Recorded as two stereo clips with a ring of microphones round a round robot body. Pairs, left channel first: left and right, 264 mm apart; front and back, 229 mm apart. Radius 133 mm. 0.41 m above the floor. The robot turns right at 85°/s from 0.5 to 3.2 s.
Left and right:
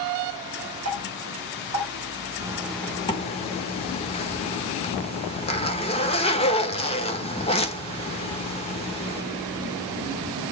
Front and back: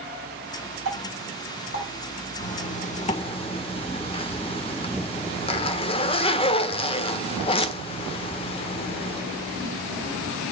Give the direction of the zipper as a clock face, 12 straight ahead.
1 o'clock.